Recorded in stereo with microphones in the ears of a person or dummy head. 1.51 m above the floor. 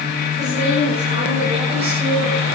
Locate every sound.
0.4 s a woman speaking: 40° right (ahead or behind), 6 m; by 2.5 s 25° right (ahead or behind), 6 m